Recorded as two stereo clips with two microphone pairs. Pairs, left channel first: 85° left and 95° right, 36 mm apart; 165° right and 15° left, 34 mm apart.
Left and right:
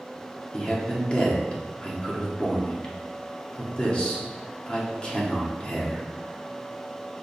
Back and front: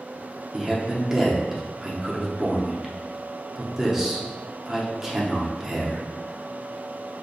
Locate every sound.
0.5 s a man speaking: 80° left, 0.8 m